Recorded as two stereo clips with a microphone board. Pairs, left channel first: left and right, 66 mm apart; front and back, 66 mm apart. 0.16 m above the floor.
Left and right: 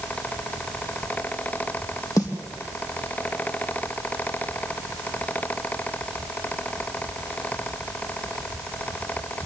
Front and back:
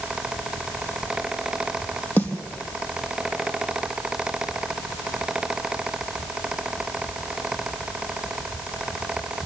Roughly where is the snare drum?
Ahead left.